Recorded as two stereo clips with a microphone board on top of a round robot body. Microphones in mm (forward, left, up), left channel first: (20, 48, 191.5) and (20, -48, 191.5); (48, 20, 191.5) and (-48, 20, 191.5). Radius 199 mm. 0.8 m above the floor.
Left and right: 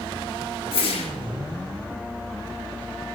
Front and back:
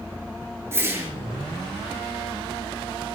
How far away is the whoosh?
About 5.5 m.